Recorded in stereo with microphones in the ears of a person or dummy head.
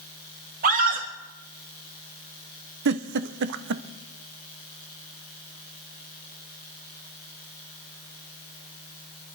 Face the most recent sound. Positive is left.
turn(degrees=-60)  # may be behind; listen again after turning